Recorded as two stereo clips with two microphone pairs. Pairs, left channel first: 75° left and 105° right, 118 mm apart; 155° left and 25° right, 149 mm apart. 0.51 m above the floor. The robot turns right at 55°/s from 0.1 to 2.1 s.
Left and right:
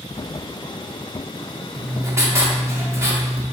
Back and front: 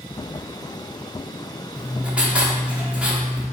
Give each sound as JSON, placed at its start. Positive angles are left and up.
{"t": 1.8, "sound": "writing", "azimuth_deg": -115, "distance_m": 0.7}